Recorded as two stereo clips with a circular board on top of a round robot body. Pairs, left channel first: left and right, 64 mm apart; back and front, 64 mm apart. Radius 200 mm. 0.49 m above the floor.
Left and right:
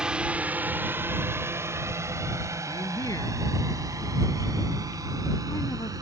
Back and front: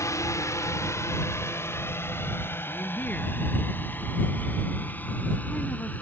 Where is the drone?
165° right; by 6.0 s 115° right.